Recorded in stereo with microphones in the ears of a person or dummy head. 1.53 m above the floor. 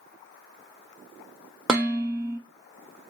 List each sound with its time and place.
1.7 s dishes clattering: centre (ahead or behind), 1.2 m